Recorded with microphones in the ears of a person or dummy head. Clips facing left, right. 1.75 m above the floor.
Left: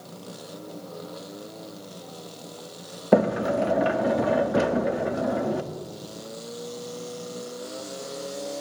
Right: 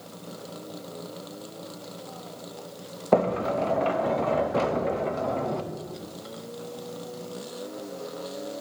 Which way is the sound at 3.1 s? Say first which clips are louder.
Left 2 dB; 15° left (ahead or behind).